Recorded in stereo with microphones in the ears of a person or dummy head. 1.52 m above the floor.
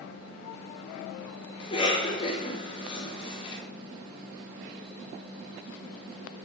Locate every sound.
1.6 s a cough: 30° left (ahead or behind), 4 m